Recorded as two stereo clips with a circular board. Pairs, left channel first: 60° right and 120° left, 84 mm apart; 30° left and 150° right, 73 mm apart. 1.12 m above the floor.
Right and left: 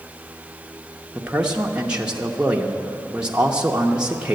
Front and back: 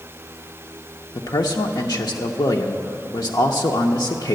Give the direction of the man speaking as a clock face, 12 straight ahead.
11 o'clock.